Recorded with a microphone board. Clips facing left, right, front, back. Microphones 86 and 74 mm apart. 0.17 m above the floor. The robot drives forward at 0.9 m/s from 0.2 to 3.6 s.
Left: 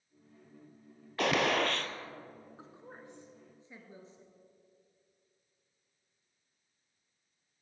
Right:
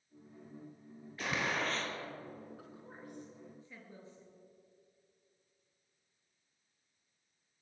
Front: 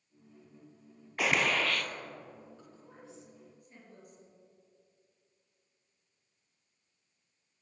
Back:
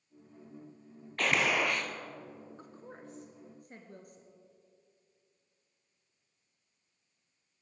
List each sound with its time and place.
1.2 s a gunshot: 80° left, 0.9 m; by 1.9 s 120° left, 1.0 m
2.6 s a woman speaking: 145° left, 2.0 m; by 4.3 s 160° left, 2.5 m